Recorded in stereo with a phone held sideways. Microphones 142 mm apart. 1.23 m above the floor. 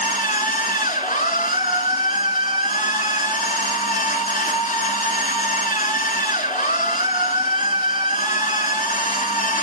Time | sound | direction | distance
0.0 | a machine running | 60° left (ahead or behind) | 2 m